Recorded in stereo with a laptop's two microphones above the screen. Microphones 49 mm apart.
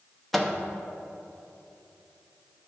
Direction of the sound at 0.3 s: 5° left (ahead or behind).